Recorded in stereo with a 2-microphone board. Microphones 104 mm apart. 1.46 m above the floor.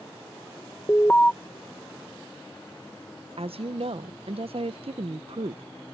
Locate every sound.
0.9 s an alarm: 15° left (ahead or behind)
3.4 s a woman speaking: 65° right (ahead or behind)